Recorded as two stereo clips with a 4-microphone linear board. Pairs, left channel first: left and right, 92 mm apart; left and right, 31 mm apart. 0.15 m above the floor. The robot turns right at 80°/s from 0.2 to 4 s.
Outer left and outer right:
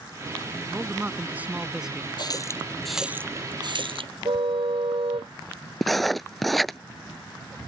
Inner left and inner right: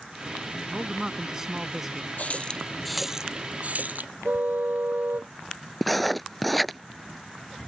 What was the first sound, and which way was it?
A man speaking, 20° right (ahead or behind).